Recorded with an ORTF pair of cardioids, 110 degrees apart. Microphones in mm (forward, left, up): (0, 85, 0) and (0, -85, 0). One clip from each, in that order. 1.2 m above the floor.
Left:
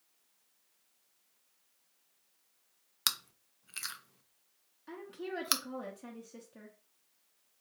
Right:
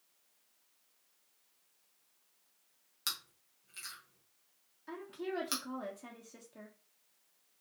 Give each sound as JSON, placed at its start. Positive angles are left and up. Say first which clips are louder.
{"t": 3.1, "sound": "chewing", "louder": "left 6 dB", "azimuth_deg": 50, "distance_m": 0.7}
{"t": 4.9, "sound": "a woman speaking", "louder": "right 1 dB", "azimuth_deg": 10, "distance_m": 1.0}